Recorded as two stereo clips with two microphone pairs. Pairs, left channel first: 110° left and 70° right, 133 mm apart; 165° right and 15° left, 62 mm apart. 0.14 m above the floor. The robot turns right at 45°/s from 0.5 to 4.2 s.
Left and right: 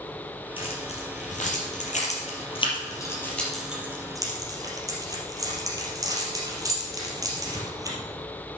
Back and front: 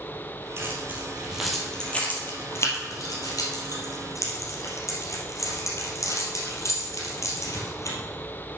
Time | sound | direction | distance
0.6 | keys jangling | 60° left | 3 m